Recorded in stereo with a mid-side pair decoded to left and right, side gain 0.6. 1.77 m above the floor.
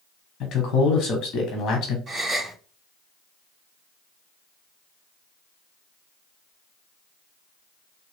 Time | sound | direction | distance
0.4 | a man speaking | 55° left | 1.3 m
2.1 | a gasp | 20° right | 2.5 m